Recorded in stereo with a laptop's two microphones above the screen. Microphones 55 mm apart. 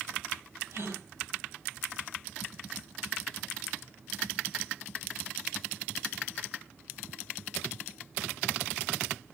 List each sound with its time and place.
0.7 s a gasp: 60° right (ahead or behind), 8.5 m